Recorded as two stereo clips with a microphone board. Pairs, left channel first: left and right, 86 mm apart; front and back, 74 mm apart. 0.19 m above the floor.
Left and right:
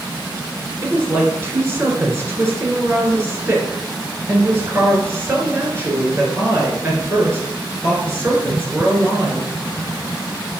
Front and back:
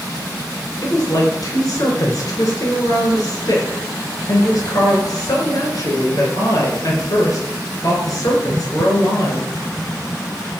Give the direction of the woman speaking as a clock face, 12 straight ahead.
1 o'clock.